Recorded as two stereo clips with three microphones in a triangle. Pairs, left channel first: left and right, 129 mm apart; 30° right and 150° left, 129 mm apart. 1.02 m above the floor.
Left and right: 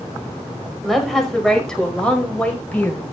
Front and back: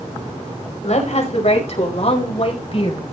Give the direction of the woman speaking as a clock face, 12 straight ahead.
12 o'clock.